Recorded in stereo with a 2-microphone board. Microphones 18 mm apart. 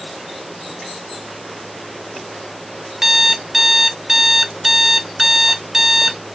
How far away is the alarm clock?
About 0.7 m.